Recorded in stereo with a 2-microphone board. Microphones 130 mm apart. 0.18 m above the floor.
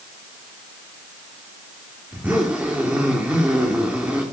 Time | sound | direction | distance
2.1 | a zipper | 10° right (ahead or behind) | 3.5 m